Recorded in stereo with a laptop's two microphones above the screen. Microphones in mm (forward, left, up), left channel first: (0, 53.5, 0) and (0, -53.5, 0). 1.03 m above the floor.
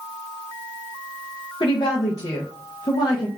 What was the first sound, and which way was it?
A woman speaking, 45° left (ahead or behind).